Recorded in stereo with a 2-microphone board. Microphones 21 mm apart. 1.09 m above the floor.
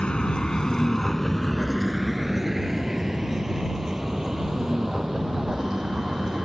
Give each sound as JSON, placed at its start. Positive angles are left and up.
{"t": 0.0, "sound": "a vehicle", "side_deg": 65}